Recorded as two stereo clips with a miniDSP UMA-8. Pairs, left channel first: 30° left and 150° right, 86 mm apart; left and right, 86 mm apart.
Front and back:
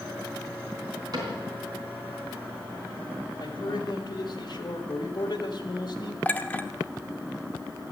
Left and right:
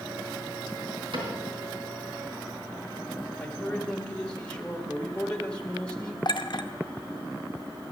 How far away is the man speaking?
About 1.5 m.